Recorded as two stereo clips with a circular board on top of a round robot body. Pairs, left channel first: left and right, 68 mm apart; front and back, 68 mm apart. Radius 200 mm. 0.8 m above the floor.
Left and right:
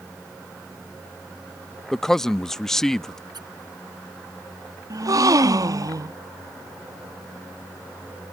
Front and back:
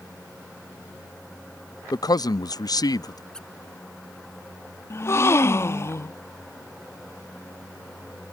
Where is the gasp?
55° right.